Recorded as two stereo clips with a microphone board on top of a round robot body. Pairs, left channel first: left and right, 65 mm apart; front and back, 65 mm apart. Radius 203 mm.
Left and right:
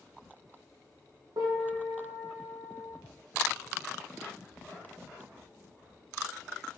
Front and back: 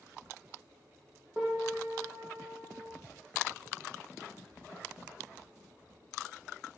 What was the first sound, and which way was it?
A piano, 100° right.